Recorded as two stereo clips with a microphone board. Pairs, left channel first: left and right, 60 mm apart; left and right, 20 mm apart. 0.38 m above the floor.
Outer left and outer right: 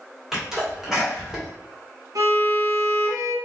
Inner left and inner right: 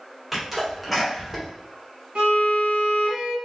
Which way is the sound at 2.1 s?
75° right (ahead or behind).